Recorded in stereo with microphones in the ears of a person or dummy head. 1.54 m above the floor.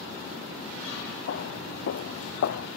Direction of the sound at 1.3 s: 65° left (ahead or behind).